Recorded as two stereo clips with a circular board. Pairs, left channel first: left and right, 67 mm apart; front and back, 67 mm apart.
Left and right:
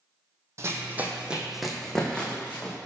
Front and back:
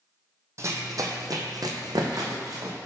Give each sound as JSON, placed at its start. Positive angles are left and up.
{"t": 0.6, "sound": "running footsteps", "azimuth_deg": -135, "distance_m": 0.7}